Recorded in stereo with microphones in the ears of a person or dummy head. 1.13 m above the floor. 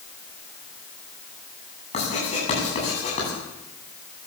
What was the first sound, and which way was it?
Writing, 30° left (ahead or behind).